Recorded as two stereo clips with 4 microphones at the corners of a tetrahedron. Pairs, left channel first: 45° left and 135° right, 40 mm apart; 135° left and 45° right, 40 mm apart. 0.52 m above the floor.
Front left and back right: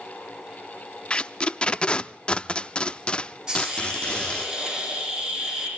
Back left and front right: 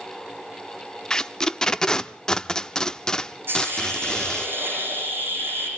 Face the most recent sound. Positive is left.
turn(degrees=-65)